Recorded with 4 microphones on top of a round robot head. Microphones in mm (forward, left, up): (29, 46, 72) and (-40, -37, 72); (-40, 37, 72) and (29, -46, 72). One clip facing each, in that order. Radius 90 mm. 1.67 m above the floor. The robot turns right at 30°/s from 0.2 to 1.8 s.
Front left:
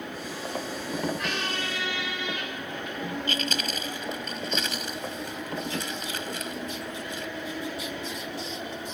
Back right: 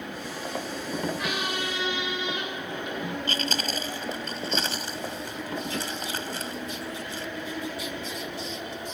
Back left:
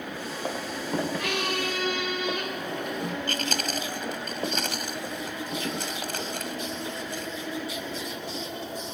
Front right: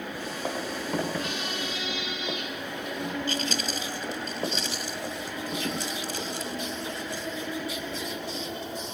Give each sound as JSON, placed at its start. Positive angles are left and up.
{"t": 1.2, "sound": "a squeak", "azimuth_deg": 145}
{"t": 3.3, "sound": "chewing", "azimuth_deg": 170}